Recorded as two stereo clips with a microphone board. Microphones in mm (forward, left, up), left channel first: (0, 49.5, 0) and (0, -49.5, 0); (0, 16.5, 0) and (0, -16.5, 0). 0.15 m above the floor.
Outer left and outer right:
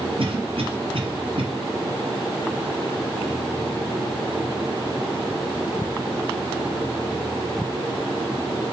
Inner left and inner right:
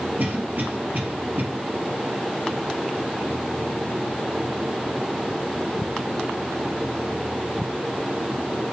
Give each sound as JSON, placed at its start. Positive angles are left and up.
{"t": 0.2, "sound": "a cough", "side_deg": -60, "distance_m": 3.5}